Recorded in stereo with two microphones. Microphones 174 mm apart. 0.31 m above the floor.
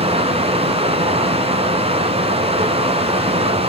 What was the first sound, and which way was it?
Running water, 35° right (ahead or behind).